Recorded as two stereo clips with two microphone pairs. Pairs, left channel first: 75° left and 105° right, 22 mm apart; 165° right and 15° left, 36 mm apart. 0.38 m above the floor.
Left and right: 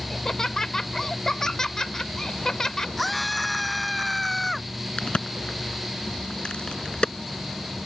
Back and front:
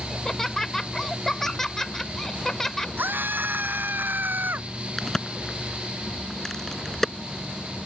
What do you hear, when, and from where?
0.1 s laughter: 120° left
3.0 s a scream: 10° right
5.0 s a crack: 115° left